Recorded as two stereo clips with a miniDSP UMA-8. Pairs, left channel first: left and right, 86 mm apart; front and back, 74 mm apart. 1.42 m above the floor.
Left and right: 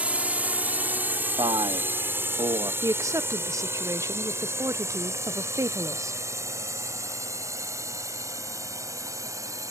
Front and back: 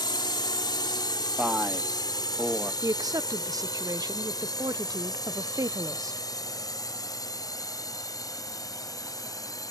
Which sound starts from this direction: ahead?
A drone, at 0.0 s.